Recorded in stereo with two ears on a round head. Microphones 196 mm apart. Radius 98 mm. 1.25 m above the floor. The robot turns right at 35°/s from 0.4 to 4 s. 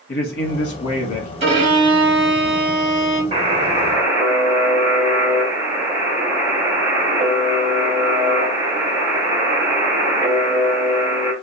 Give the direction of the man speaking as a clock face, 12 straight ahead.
10 o'clock.